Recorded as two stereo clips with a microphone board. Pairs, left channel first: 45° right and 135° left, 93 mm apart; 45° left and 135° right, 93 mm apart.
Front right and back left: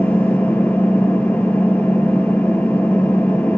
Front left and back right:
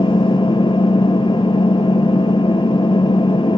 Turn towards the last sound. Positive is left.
turn(degrees=25)